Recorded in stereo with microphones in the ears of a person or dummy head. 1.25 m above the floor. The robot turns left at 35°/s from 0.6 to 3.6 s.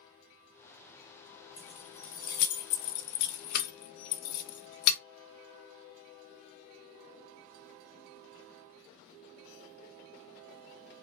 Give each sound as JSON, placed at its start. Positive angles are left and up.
{"t": 1.6, "sound": "keys jangling", "side_deg": 30, "distance_m": 0.5}